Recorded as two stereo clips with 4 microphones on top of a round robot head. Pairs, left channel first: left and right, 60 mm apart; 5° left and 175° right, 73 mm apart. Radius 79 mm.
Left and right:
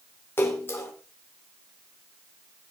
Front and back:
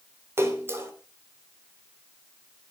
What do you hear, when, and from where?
0.4 s a splash: 135° left, 2.5 m